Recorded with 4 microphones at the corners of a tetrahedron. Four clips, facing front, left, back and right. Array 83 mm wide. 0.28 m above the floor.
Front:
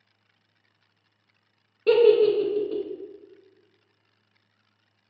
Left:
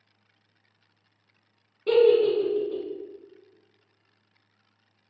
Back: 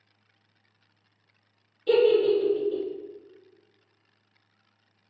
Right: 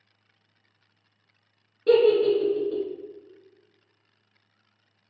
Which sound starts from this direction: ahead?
A giggle, at 1.9 s.